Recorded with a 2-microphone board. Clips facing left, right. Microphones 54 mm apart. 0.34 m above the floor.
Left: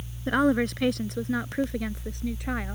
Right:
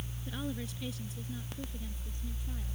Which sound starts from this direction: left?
A woman speaking, at 0.3 s.